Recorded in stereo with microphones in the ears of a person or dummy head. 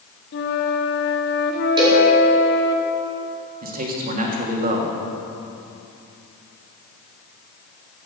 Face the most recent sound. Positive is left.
turn(degrees=-45)  # may be behind; listen again after turning